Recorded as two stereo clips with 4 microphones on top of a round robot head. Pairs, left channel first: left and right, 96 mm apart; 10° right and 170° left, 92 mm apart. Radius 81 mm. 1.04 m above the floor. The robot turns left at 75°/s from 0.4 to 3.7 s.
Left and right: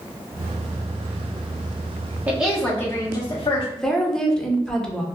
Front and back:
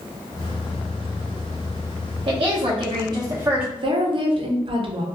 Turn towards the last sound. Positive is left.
turn(degrees=175)